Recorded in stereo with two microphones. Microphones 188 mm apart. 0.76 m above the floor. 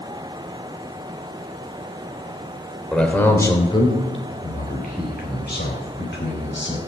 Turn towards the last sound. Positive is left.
turn(degrees=75)  # may be behind; listen again after turning